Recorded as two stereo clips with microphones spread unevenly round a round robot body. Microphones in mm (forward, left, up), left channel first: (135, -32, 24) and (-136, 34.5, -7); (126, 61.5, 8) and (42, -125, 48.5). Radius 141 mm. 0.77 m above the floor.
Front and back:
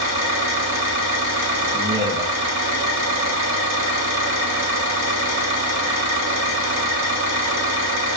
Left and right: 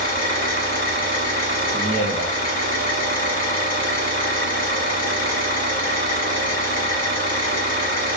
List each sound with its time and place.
0.0 s an engine running: 115° left, 1.1 m
1.7 s a man speaking: 160° right, 0.5 m